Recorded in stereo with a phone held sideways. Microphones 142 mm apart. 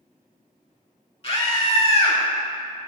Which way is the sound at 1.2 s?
45° left (ahead or behind).